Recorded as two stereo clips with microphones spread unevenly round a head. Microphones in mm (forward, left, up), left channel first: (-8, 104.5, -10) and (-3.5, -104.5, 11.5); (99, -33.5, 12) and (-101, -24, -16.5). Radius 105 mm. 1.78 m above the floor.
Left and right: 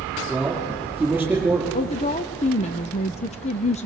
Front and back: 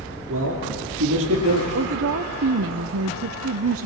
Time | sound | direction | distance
0.3 | a man speaking | 175° right | 5.5 m
1.7 | a woman speaking | 150° left | 0.6 m